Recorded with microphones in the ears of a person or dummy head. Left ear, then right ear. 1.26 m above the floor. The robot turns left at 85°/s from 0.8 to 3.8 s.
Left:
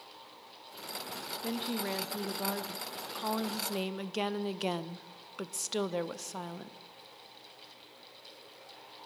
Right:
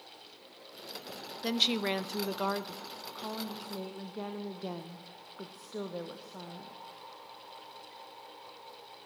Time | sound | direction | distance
1.4 | a woman speaking | 55° right | 0.8 m